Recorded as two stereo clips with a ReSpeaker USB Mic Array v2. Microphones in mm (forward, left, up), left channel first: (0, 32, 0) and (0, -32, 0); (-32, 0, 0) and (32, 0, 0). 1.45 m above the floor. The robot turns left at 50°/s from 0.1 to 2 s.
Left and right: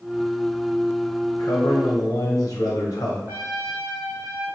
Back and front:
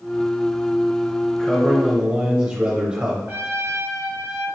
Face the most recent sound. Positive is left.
turn(degrees=-45)